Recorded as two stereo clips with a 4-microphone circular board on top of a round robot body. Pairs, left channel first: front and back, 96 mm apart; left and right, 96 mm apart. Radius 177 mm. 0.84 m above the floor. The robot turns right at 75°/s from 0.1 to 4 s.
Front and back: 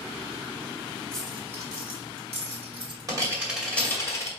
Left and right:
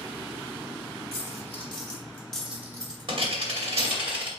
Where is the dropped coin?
80° left, 2.5 m; by 4.3 s 60° right, 2.5 m.